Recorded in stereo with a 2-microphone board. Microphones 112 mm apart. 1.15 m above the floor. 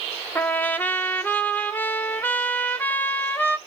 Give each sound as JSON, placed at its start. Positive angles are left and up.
{"t": 0.3, "sound": "a trumpet", "side_deg": 15, "distance_m": 0.8}